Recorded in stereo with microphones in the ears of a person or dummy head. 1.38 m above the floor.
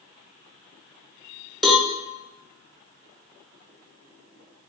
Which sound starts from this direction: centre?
A cowbell, at 1.6 s.